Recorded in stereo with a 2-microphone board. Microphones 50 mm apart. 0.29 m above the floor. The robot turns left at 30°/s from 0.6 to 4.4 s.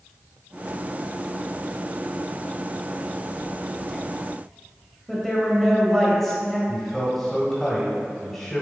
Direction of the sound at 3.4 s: 25° left (ahead or behind).